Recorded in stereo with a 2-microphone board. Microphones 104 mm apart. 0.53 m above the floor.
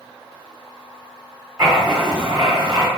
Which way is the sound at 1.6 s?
30° right (ahead or behind).